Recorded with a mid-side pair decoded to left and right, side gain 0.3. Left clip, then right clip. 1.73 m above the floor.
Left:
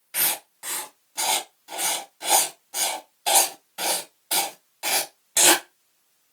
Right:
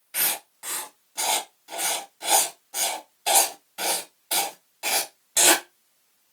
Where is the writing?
30° left, 1.3 m.